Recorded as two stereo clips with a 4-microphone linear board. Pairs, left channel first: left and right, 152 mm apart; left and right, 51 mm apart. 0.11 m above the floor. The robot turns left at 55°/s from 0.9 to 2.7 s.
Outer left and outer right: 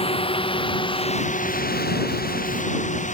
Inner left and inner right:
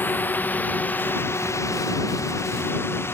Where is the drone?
40° left (ahead or behind); by 3.1 s 55° left (ahead or behind).